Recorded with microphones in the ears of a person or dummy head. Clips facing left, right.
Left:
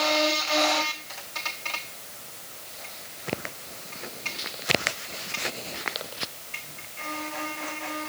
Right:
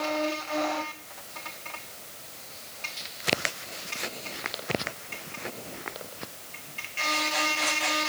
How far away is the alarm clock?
No alarm clock in this recording.